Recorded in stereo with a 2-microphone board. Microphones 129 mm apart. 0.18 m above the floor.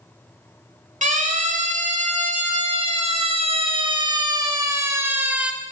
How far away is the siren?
About 4.5 m.